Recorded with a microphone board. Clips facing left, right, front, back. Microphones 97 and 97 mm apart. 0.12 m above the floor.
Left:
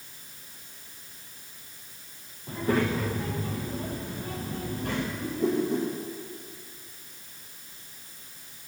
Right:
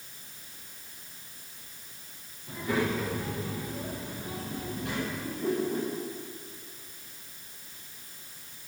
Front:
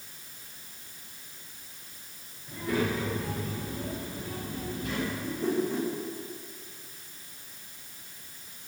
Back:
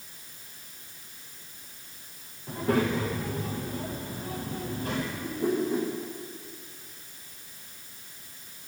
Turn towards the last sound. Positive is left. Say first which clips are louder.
# left 4 dB, back 2 dB
turn(degrees=105)